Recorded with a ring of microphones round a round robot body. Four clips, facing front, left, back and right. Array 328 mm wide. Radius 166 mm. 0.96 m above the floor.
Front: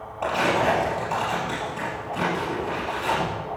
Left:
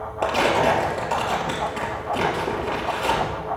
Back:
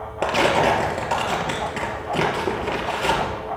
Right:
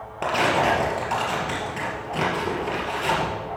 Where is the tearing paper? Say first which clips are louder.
Left 2 dB, back 3 dB; straight behind, 3 m.